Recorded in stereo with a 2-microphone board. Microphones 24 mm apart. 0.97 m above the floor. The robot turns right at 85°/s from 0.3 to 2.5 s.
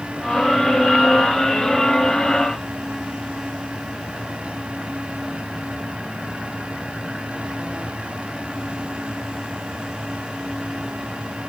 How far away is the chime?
I don't hear a chime.